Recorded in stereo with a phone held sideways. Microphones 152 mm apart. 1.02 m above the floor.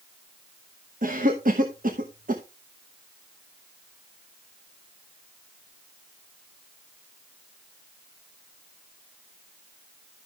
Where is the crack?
No crack in this recording.